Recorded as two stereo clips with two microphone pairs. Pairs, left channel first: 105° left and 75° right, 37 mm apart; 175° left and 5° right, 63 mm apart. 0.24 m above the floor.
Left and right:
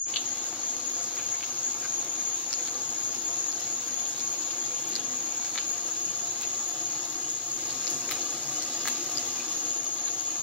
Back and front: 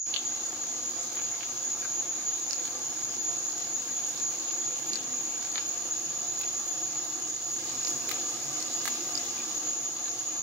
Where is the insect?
150° left, 2.5 m.